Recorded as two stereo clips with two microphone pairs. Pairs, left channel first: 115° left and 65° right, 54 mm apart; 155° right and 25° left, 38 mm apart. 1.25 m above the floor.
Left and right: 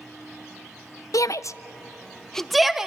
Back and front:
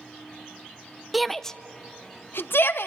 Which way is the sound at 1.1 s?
115° left.